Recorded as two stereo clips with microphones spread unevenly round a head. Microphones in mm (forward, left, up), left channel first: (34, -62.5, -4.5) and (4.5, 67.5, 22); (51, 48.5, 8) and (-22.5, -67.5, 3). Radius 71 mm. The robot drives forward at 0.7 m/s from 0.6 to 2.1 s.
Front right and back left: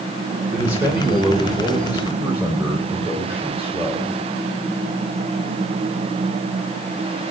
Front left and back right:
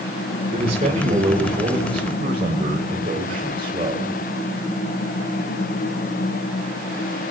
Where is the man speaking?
Straight behind, 3 m.